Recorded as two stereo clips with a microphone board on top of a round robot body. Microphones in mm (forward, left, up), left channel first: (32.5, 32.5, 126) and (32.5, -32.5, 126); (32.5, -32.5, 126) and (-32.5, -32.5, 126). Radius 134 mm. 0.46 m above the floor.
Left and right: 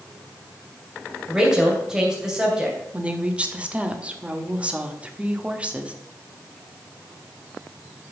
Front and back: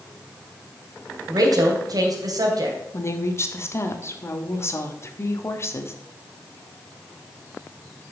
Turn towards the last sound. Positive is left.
turn(degrees=-25)